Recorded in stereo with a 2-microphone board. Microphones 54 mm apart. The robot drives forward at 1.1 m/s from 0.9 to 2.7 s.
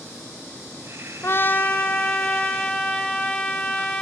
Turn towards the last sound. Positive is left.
turn(degrees=15)  # may be behind; listen again after turning